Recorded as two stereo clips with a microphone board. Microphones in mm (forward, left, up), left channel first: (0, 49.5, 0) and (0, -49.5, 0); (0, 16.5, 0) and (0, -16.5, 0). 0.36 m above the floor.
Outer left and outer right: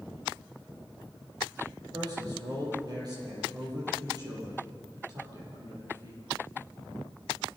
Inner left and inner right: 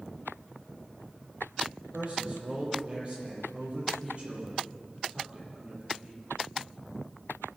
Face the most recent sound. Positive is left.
turn(degrees=-45)  # may be behind; listen again after turning